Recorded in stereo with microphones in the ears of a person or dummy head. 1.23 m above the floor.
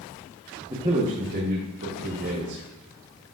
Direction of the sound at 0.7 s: 10° right (ahead or behind).